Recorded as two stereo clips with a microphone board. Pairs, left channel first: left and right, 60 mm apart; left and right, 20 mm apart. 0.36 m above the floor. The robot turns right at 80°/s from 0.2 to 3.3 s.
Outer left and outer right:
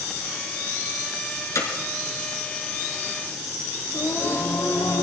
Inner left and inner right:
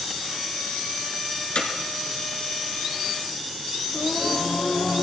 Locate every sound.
1.6 s hammering: 55° left (ahead or behind), 3.5 m; by 1.7 s 65° left (ahead or behind), 3.5 m
3.9 s singing: 35° left (ahead or behind), 6 m